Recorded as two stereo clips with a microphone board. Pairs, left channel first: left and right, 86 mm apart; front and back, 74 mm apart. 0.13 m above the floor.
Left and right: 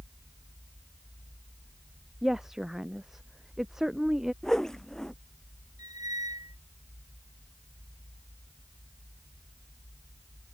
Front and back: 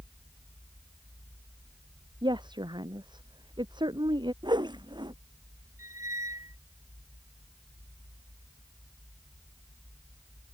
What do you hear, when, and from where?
2.2 s a woman speaking: 175° right
4.4 s a whoosh: 175° left
5.8 s a squeak: 135° right